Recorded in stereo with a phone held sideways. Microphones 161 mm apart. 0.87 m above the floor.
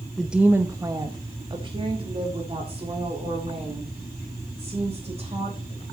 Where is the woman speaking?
Centre (ahead or behind), 0.5 m; by 5.8 s 40° right (ahead or behind), 4 m.